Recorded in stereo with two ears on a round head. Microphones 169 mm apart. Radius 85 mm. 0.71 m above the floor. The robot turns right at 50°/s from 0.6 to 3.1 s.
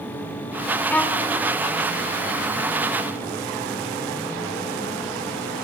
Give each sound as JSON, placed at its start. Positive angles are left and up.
{"t": 0.9, "sound": "a violin", "side_deg": 10, "distance_m": 1.4}